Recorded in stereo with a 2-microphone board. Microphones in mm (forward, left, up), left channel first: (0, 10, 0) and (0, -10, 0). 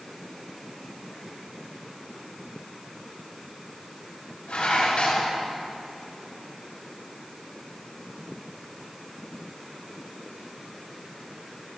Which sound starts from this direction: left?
Dishes clattering, at 4.5 s.